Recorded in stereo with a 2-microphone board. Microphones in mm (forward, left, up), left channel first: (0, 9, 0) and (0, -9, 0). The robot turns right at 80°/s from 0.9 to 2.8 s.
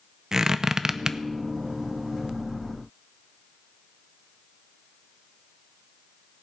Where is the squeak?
30° right (ahead or behind), 0.5 m.